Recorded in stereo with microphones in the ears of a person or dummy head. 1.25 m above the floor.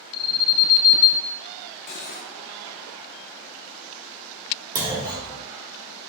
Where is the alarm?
55° left (ahead or behind), 0.8 m.